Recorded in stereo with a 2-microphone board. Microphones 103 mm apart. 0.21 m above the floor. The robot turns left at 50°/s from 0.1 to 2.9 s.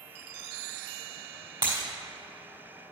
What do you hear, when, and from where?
1.6 s breaking glass: 40° right (ahead or behind), 3 m; by 1.8 s 30° right (ahead or behind), 3 m